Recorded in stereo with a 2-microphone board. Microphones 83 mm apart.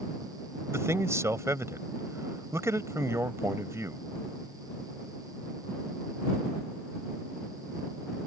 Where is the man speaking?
35° right (ahead or behind).